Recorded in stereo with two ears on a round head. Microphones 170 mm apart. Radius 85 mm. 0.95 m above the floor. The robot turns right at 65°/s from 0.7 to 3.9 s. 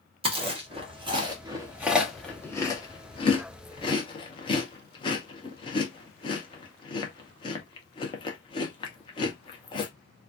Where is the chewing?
30° right (ahead or behind), 0.8 m; by 9.9 s 25° left (ahead or behind), 0.8 m.